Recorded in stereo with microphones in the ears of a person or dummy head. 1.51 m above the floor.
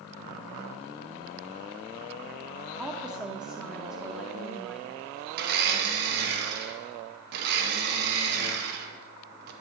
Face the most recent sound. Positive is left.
turn(degrees=-60)  # may be behind; listen again after turning